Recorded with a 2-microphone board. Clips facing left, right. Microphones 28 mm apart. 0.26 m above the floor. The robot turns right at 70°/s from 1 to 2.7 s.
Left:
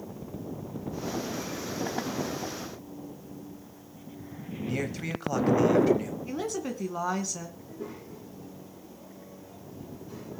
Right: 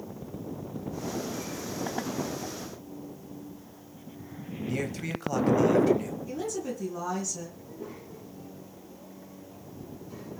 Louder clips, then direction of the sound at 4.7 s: Even; 10° left (ahead or behind).